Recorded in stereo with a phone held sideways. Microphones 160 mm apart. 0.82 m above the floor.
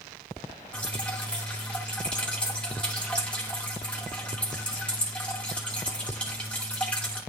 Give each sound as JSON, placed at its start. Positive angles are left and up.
{"t": 0.7, "sound": "dripping", "side_deg": 5, "distance_m": 2.5}